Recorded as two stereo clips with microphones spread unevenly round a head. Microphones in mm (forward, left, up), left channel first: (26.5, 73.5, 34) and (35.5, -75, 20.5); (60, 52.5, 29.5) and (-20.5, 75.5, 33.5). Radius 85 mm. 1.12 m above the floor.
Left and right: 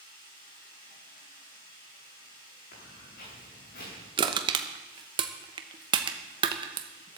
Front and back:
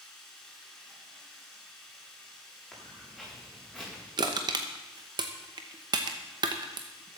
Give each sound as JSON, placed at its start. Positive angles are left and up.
{"t": 0.0, "sound": "running water", "azimuth_deg": 70, "distance_m": 7.5}
{"t": 2.7, "sound": "footsteps", "azimuth_deg": 80, "distance_m": 9.5}
{"t": 4.2, "sound": "crushing", "azimuth_deg": -145, "distance_m": 0.9}